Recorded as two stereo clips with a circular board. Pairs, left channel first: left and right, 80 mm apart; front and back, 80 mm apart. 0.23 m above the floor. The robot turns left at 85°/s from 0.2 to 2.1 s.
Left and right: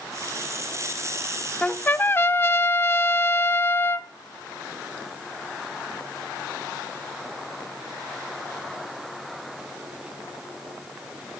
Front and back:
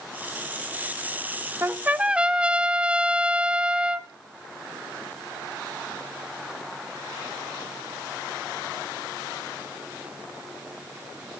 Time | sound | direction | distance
1.6 | a trumpet | 155° left | 0.7 m